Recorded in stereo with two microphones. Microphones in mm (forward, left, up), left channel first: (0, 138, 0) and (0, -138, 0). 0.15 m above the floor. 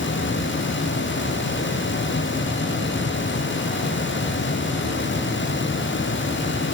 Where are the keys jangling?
No keys jangling in this recording.